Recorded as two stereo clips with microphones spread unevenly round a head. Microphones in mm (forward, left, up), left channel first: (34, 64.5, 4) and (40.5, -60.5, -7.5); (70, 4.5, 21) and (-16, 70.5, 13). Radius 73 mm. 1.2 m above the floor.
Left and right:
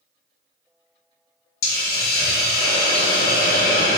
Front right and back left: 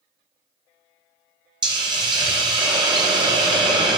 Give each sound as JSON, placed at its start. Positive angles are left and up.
{"t": 1.6, "sound": "a hiss", "azimuth_deg": 90, "distance_m": 0.8}